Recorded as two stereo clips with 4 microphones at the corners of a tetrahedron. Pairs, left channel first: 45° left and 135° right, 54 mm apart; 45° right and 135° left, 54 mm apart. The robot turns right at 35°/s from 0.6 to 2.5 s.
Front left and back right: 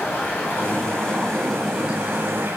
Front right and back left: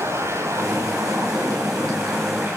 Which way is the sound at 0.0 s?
105° left.